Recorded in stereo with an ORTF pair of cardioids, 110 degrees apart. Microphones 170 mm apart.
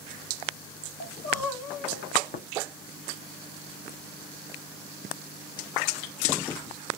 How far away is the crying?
About 1.9 m.